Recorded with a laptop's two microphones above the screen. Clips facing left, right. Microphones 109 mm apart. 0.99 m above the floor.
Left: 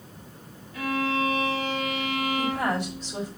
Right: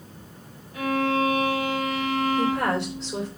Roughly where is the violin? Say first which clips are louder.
Right 3 dB; right.